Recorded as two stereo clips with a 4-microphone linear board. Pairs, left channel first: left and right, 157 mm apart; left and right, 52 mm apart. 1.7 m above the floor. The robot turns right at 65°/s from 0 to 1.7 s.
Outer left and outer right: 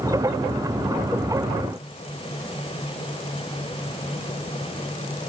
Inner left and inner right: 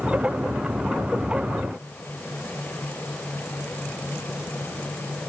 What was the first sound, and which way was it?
Only background noise.